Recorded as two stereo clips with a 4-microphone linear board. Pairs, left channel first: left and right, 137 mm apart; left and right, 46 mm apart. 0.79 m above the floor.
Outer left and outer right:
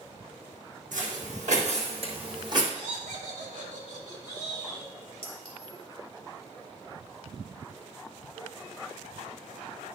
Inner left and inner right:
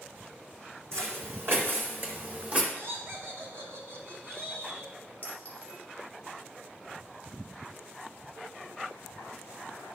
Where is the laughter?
75° right (ahead or behind), 2.5 m.